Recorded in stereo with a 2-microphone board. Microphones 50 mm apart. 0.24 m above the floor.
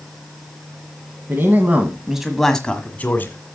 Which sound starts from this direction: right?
A man speaking, at 1.3 s.